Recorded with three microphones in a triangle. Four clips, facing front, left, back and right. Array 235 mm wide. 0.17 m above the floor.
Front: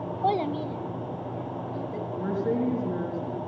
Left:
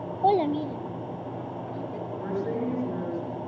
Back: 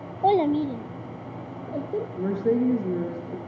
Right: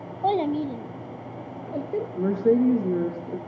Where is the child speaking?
140° left, 0.6 m; by 2.0 s 130° right, 1.8 m.